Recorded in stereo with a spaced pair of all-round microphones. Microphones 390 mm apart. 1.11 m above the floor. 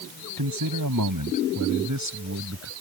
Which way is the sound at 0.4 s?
60° right (ahead or behind).